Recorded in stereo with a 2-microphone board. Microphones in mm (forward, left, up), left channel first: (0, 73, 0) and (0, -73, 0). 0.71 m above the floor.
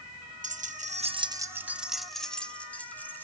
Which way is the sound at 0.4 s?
55° right (ahead or behind).